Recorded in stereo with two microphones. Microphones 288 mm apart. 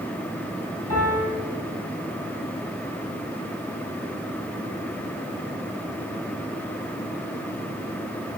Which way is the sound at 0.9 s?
60° left (ahead or behind).